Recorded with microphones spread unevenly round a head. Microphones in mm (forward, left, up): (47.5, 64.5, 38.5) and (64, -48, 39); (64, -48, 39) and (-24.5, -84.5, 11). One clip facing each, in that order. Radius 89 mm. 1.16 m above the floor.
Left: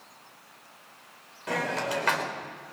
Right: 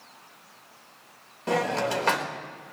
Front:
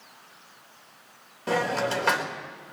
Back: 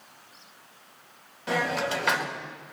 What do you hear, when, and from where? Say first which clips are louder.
1.5 s a hiss: right 4 dB, front 2 dB; 25° right, 4 m